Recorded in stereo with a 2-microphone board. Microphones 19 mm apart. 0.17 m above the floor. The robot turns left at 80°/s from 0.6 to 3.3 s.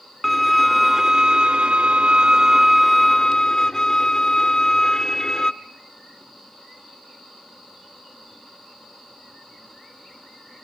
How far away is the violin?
About 0.6 m.